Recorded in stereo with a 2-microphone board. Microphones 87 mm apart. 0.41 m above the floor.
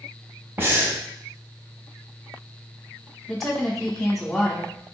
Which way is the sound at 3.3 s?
5° left (ahead or behind).